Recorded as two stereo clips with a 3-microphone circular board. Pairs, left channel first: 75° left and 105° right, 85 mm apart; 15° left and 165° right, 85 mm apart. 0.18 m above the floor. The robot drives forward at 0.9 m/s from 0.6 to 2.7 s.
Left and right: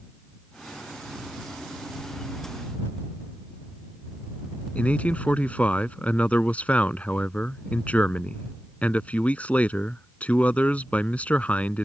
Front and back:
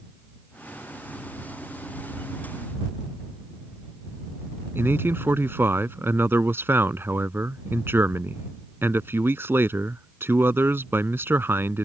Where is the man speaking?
140° left.